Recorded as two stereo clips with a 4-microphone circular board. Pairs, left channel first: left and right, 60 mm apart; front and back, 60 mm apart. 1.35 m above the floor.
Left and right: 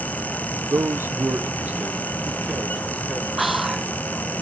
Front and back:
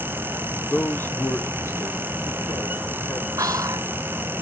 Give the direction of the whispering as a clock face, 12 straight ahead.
6 o'clock.